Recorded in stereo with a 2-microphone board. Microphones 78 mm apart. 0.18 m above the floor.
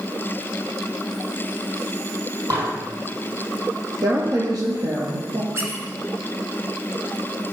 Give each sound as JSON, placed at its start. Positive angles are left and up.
{"t": 2.5, "sound": "dishes clattering", "side_deg": -55, "distance_m": 4.0}
{"t": 4.0, "sound": "a woman speaking", "side_deg": -50, "distance_m": 5.0}
{"t": 5.5, "sound": "a squeak", "side_deg": -35, "distance_m": 1.8}